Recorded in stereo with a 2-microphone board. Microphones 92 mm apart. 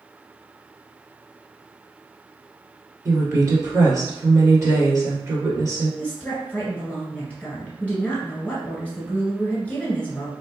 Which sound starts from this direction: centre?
A woman speaking, at 6.0 s.